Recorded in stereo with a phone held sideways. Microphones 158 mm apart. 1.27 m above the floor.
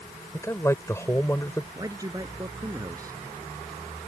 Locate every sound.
0.3 s a man speaking: 15° left (ahead or behind)
1.8 s a man speaking: 20° right (ahead or behind)